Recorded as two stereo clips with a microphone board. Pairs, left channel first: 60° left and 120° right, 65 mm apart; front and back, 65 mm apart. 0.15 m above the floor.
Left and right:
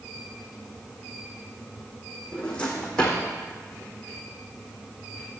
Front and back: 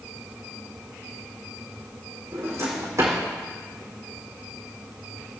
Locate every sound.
2.3 s a drawer: 135° left, 4 m